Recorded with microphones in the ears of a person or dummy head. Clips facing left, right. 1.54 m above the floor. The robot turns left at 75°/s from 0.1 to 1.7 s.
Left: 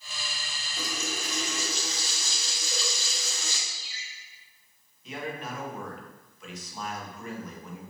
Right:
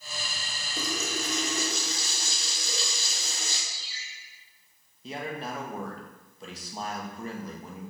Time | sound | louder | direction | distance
0.8 | a running tap | right 3 dB | 65° right | 3 m
3.7 | a ringtone | even | 30° right (ahead or behind) | 3 m
5.0 | a man speaking | right 1 dB | 30° right (ahead or behind) | 1.7 m